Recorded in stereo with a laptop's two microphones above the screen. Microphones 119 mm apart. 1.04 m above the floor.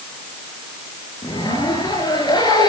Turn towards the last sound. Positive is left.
turn(degrees=40)  # may be behind; listen again after turning